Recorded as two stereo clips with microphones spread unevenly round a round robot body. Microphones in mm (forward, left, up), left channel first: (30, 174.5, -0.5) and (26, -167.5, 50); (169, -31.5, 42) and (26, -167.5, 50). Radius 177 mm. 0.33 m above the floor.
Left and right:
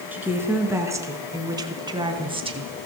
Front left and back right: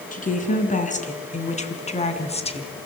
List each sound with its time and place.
0.1 s a woman speaking: 5° right, 5 m; by 2.7 s 15° right, 4 m